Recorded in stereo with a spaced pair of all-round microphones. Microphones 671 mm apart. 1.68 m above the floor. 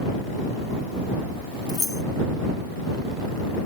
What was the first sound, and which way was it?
Keys jangling, 5° left (ahead or behind).